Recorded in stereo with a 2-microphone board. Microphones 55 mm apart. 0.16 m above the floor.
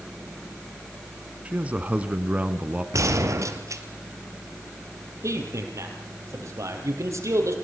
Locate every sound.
1.4 s a man speaking: 25° right (ahead or behind), 1.6 m
2.9 s a gunshot: 70° right (ahead or behind), 2.5 m
5.2 s a man speaking: 65° right (ahead or behind), 5 m